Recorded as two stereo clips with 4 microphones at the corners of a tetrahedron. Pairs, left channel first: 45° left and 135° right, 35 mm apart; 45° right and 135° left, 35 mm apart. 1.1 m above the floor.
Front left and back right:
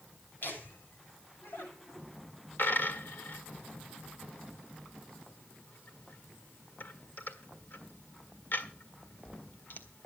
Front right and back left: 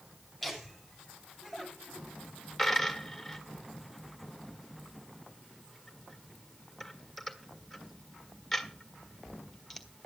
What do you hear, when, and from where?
0.4 s laughter: 45° left, 7 m
2.6 s a dropped coin: 40° left, 1.6 m